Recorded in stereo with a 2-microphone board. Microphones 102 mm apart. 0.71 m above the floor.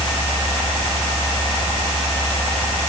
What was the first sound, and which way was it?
Only background noise.